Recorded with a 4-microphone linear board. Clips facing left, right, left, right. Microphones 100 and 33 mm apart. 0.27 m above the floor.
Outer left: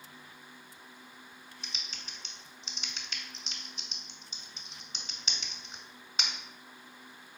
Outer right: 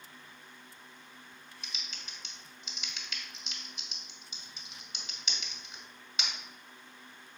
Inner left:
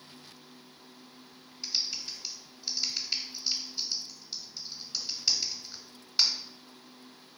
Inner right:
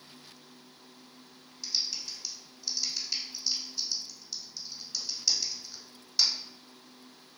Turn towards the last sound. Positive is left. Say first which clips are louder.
# outer left 1 dB, even
turn(degrees=35)  # may be behind; listen again after turning